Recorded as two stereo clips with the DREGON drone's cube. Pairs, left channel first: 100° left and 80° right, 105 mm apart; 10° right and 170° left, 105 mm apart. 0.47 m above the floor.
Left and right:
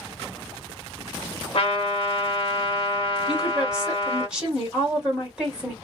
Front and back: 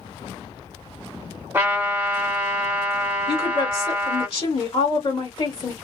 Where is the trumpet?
100° left, 1.3 m.